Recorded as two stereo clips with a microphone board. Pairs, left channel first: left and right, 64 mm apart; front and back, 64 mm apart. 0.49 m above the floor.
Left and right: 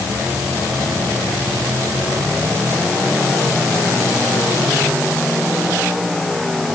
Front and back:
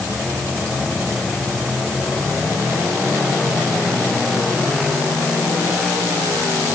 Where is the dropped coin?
No dropped coin in this recording.